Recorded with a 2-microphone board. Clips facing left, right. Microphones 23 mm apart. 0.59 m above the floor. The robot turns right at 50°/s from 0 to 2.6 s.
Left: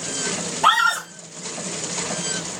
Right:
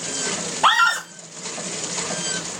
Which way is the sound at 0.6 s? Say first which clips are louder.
Right 1 dB; 20° right (ahead or behind).